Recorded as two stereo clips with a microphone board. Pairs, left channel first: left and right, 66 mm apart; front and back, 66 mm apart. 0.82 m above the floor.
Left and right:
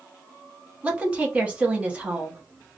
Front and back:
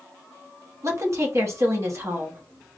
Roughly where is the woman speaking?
Behind right.